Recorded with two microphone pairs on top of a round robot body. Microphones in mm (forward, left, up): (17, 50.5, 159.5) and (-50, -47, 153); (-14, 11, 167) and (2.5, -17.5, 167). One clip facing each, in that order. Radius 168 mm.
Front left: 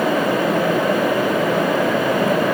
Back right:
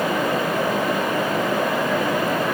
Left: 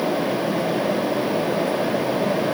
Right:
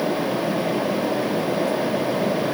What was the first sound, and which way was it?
Only background noise.